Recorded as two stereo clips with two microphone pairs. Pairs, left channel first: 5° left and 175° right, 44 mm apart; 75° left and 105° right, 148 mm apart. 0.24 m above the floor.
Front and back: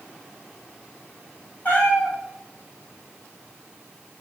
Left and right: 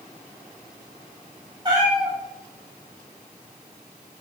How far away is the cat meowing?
About 3 m.